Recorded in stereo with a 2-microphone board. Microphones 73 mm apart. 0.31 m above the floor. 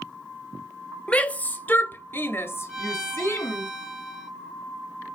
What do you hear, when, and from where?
1.1 s a shout: 20° left (ahead or behind), 1.1 m; by 3.7 s 30° left (ahead or behind), 1.3 m
2.7 s a violin: 10° right (ahead or behind), 2.5 m